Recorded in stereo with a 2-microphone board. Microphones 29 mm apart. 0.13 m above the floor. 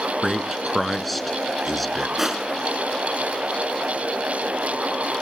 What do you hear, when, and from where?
0.2 s a man speaking: centre (ahead or behind), 1.3 m
2.2 s crushing: 15° right (ahead or behind), 1.6 m